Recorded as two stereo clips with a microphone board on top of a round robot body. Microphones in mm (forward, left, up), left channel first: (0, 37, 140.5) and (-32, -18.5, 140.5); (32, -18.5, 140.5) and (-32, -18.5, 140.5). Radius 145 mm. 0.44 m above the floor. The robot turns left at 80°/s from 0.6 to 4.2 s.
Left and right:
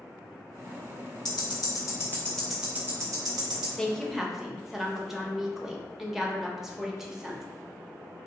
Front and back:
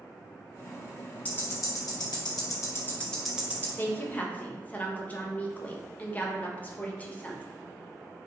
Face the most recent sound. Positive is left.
turn(degrees=-40)